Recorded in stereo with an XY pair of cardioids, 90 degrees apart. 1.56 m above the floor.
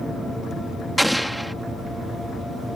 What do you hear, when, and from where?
1.0 s an explosion: 5° right